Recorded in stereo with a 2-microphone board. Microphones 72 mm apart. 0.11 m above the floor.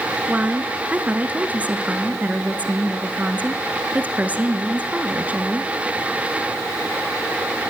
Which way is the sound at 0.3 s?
20° right (ahead or behind).